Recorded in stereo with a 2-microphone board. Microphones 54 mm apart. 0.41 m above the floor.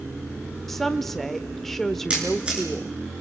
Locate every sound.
0.7 s a woman speaking: 5° left (ahead or behind), 0.8 m
2.1 s a camera shutter: 20° right (ahead or behind), 6.5 m